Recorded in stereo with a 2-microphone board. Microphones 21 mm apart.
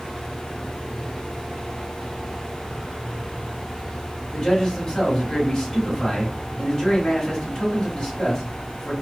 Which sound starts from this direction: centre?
A man speaking, at 4.3 s.